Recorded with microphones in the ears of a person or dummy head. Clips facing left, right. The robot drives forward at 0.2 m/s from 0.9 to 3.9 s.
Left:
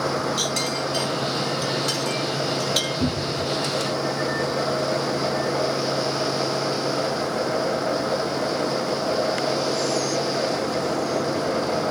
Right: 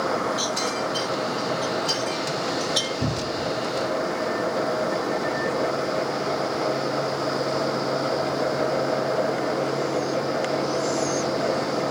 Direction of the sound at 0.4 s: 55° left (ahead or behind).